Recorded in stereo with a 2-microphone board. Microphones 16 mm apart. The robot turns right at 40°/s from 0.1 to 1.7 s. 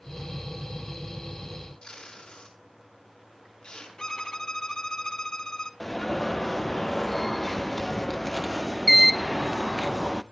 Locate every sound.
1.8 s tape being pulled: 80° left, 5.5 m
4.0 s a violin: 50° left (ahead or behind), 1.5 m
5.8 s an alarm: 10° left (ahead or behind), 0.7 m